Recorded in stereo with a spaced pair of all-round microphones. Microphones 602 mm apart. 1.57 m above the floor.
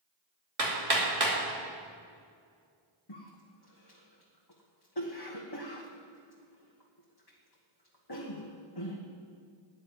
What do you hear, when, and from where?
0.6 s hammering: 65° right (ahead or behind), 2.5 m
3.1 s a cough: 40° left (ahead or behind), 1.3 m